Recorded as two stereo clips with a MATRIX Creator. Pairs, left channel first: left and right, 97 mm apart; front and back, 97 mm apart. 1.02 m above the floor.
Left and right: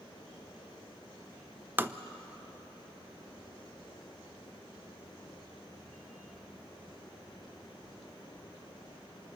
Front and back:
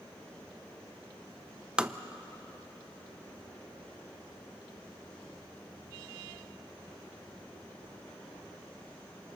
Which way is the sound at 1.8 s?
115° right.